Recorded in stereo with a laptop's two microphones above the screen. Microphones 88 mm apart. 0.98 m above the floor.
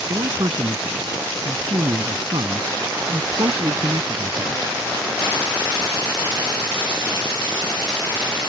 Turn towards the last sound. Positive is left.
turn(degrees=-60)  # may be behind; listen again after turning